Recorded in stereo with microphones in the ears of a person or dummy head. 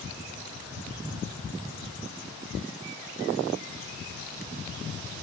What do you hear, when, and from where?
Only background noise.